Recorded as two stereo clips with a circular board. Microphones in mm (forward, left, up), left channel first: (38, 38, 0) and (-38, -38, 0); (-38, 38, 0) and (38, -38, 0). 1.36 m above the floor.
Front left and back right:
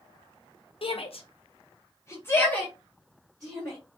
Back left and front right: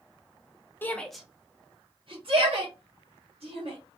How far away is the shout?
About 0.6 m.